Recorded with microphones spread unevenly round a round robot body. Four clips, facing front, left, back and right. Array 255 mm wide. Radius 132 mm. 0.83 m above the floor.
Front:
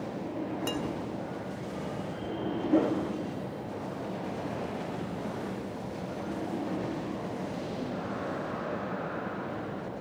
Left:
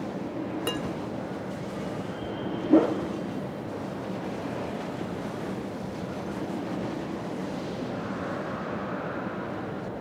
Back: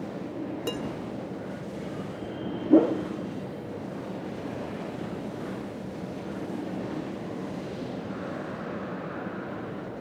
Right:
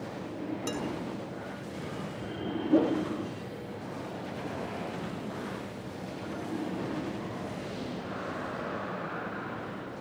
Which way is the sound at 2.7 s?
160° left.